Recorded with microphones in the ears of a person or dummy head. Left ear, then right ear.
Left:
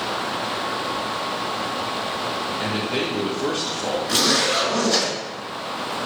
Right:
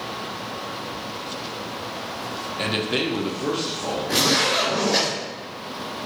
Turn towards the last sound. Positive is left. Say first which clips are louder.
# even
turn(degrees=45)  # may be behind; listen again after turning